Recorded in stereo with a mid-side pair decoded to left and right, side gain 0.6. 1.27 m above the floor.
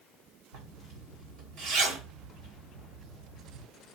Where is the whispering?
I don't hear whispering.